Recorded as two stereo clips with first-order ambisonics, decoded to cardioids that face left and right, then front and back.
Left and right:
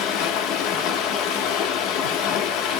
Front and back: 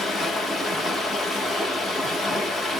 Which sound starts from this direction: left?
Running water, at 0.0 s.